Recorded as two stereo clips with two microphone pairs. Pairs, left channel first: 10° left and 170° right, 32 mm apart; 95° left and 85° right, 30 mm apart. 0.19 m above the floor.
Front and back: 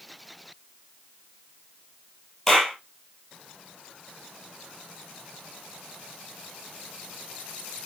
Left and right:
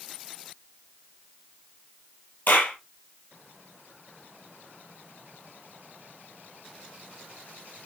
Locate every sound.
2.5 s a clap: 90° left, 4.5 m